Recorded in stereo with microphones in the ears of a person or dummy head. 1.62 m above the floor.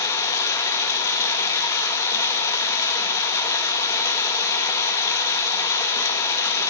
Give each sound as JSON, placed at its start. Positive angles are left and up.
{"t": 0.0, "sound": "running water", "side_deg": 20, "distance_m": 1.2}